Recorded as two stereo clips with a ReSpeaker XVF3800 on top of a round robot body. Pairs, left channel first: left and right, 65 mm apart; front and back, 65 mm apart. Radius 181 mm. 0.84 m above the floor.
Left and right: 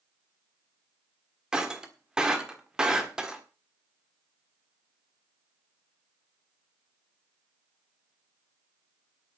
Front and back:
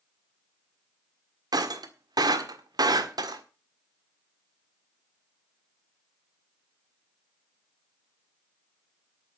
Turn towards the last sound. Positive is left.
turn(degrees=-170)